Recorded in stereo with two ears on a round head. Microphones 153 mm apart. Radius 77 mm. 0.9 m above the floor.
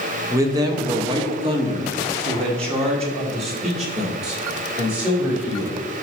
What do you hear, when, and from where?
0.3 s a man speaking: 15° right (ahead or behind), 1.0 m; by 5.8 s 40° right (ahead or behind), 3.5 m